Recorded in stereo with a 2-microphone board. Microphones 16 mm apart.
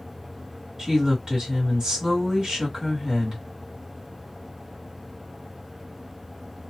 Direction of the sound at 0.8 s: 30° right (ahead or behind).